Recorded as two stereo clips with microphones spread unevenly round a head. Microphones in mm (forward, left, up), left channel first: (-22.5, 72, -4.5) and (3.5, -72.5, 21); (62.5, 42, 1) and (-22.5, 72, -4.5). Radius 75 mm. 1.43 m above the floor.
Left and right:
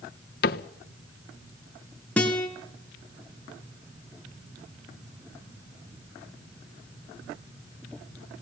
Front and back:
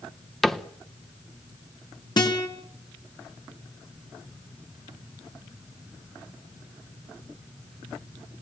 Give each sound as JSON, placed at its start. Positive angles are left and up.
{"t": 0.4, "sound": "a cupboard door", "azimuth_deg": 65, "distance_m": 1.0}
{"t": 2.2, "sound": "a guitar", "azimuth_deg": 15, "distance_m": 4.5}